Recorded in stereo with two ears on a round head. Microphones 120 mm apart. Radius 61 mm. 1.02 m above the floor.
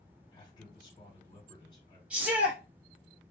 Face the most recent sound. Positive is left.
turn(degrees=-10)  # may be behind; listen again after turning